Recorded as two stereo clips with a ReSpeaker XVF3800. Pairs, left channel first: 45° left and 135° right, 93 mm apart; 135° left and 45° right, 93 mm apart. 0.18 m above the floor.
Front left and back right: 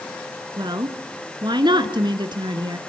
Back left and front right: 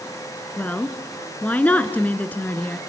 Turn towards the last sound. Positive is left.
turn(degrees=-155)